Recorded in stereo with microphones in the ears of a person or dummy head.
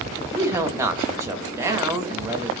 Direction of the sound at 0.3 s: 15° right (ahead or behind).